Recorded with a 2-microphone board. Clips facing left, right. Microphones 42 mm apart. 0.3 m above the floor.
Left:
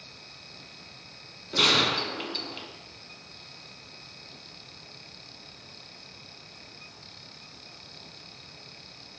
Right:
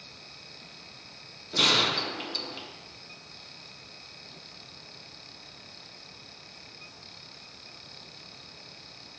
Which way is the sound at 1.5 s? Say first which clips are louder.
Left 1 dB; 15° left (ahead or behind).